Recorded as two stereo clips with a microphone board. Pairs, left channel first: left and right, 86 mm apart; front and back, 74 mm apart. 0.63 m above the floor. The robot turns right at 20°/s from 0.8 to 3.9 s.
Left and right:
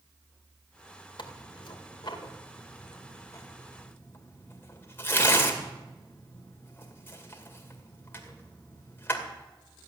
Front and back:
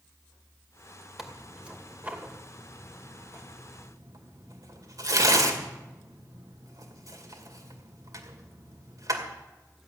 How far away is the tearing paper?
About 2 m.